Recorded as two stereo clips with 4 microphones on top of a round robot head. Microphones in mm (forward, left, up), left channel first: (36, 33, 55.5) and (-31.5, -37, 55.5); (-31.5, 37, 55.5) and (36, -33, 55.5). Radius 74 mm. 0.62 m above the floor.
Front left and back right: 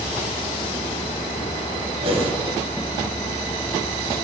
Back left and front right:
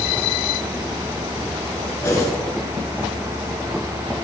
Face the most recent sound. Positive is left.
turn(degrees=-160)